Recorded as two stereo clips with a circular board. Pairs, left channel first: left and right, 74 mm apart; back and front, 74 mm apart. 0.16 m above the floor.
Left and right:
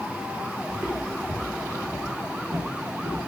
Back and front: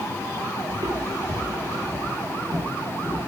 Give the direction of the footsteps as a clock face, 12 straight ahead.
1 o'clock.